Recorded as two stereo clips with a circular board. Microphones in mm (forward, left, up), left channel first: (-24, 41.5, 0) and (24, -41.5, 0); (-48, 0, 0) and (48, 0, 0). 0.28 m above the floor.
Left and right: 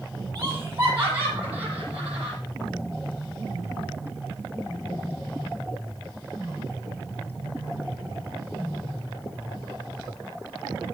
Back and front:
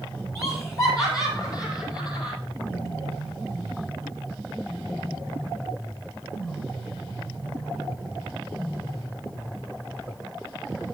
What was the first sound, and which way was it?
Laughter, 125° right.